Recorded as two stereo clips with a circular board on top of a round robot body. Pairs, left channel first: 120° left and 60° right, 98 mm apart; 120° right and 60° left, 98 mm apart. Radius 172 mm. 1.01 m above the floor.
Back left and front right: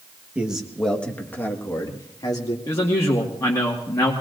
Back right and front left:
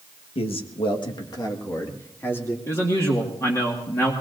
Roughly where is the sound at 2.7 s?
Behind.